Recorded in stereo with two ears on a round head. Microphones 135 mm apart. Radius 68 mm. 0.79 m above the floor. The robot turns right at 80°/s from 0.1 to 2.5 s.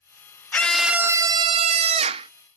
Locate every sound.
0.5 s a scream: 160° left, 0.6 m; by 2.3 s 60° right, 0.6 m